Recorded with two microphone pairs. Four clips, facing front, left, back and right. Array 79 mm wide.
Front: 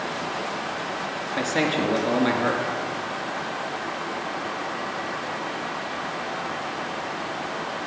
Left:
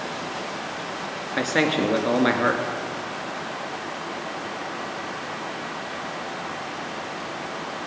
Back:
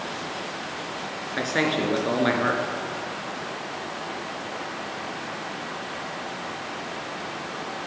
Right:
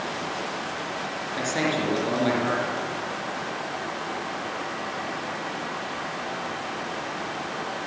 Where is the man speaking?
110° left, 2 m.